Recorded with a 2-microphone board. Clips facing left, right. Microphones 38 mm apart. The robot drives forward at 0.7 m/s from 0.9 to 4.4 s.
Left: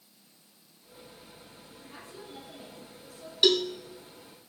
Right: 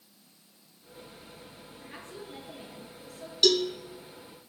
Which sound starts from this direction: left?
A cowbell, at 3.4 s.